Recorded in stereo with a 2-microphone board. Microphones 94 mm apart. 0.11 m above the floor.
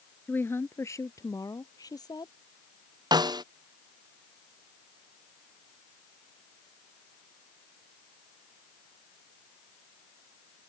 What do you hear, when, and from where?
0.3 s a woman speaking: 20° left (ahead or behind); by 2.3 s 45° left (ahead or behind)
3.1 s a snare drum: 45° right (ahead or behind)